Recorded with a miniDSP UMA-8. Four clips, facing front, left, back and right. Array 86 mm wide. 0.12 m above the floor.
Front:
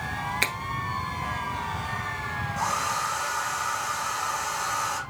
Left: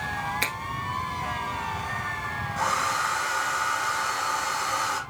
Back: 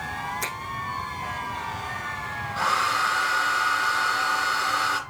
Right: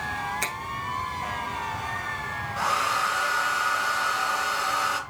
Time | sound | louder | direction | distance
0.4 | a finger snap | left 1 dB, front 2 dB | 15° left | 1.3 m
2.6 | a hair dryer | right 1 dB, back 5 dB | 165° right | 2.0 m